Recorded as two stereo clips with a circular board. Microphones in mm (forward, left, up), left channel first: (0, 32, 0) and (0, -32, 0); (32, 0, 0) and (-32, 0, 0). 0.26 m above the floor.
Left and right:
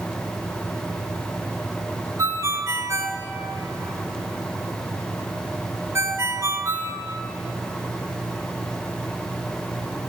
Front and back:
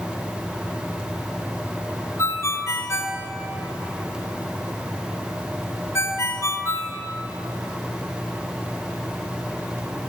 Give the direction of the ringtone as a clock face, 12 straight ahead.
2 o'clock.